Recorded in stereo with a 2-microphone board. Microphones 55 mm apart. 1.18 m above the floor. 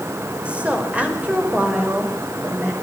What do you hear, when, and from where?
0.5 s a woman speaking: 20° right (ahead or behind), 5 m; by 2.7 s 30° right (ahead or behind), 6.5 m